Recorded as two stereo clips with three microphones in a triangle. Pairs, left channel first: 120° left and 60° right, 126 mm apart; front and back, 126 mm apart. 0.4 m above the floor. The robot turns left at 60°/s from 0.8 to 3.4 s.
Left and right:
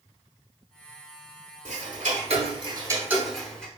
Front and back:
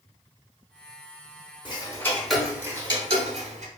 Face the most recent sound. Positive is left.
turn(degrees=-155)